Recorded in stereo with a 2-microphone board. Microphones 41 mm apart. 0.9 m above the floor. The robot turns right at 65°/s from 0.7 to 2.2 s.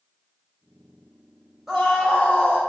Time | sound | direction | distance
1.7 | a scream | 5° right | 4 m